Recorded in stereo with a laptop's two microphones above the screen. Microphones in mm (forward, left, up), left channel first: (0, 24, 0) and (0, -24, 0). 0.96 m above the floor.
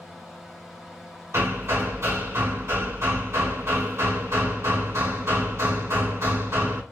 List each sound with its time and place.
0.0 s a fan: 15° right (ahead or behind), 0.9 m
1.3 s hammering: 85° right, 1.8 m